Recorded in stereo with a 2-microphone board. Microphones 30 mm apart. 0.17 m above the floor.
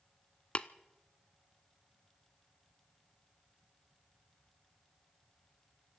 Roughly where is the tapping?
Left.